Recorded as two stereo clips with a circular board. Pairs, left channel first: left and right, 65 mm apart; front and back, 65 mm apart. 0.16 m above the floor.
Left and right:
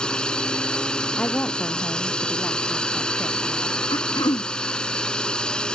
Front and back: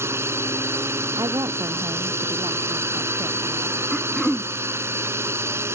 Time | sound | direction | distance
0.0 | a drone | 160° left | ?
1.2 | a woman speaking | 160° left | ?
3.9 | throat clearing | 90° left | ?